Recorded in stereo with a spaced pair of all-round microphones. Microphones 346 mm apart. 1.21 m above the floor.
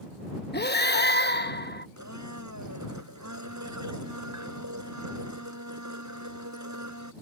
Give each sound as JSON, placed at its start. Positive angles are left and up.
{"t": 0.5, "sound": "breathing", "side_deg": 30}
{"t": 2.0, "sound": "a blender", "side_deg": -55}